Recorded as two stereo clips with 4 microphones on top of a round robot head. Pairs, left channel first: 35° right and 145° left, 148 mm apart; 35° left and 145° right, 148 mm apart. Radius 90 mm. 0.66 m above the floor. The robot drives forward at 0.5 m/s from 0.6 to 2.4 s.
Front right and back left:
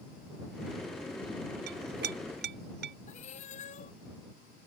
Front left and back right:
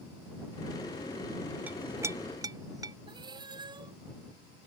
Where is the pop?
No pop in this recording.